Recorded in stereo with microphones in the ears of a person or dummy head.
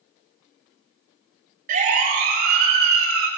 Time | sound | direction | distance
1.7 | a siren | 45° right (ahead or behind) | 6 m